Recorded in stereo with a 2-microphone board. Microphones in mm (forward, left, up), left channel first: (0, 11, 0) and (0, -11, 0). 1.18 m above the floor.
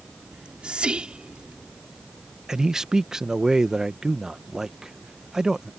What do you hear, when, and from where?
0.3 s whispering: 50° right (ahead or behind)
2.5 s a man speaking: 25° right (ahead or behind)